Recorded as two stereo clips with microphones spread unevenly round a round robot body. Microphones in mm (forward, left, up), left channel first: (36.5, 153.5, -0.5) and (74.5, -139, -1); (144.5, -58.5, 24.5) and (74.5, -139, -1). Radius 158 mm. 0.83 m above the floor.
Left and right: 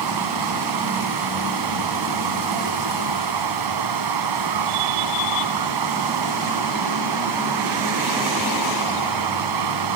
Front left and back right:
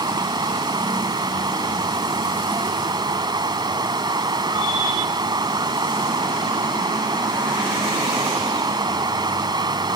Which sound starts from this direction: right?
Running water, at 0.0 s.